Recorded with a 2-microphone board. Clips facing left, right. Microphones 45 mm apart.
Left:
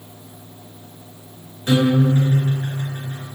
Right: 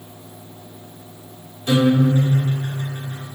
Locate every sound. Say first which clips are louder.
1.7 s a guitar: even; 35° left (ahead or behind), 1.6 m